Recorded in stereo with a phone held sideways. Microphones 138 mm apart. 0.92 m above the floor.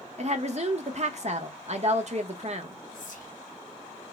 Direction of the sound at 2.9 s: 70° left (ahead or behind).